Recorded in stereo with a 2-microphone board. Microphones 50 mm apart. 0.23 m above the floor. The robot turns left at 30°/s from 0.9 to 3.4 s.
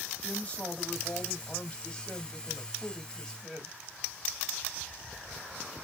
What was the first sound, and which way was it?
A woman speaking, 20° left (ahead or behind).